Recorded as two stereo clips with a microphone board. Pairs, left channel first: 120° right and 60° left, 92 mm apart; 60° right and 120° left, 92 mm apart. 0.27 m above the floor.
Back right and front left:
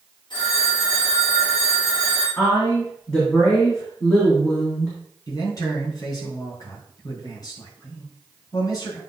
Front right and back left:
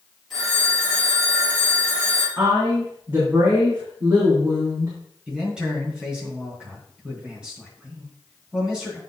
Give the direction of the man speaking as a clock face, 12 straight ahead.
5 o'clock.